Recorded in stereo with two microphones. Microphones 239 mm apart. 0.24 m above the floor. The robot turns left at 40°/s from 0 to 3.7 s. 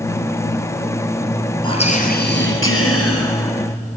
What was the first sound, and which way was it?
Whispering, 160° left.